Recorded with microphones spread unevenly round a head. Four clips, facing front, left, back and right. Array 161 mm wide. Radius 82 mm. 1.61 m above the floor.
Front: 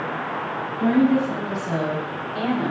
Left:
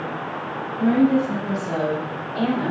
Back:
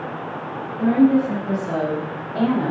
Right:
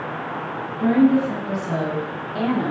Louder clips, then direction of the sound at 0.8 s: Right 1 dB, back 3 dB; 160° left.